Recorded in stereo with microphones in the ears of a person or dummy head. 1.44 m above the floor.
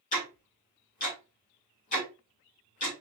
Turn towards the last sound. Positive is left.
turn(degrees=40)  # may be behind; listen again after turning